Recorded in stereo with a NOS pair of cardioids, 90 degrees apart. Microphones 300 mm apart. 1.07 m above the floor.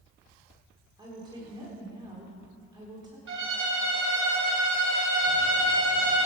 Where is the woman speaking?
15° right, 3 m.